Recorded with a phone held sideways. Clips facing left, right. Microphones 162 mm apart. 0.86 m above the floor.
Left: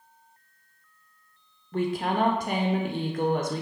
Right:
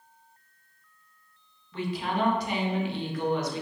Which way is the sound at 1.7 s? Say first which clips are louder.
Left 4 dB; 50° left (ahead or behind).